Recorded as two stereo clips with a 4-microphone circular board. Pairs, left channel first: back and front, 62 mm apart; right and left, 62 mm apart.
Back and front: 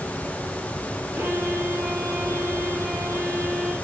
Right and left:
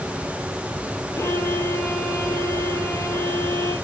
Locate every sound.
1.1 s a violin: 55° right, 8 m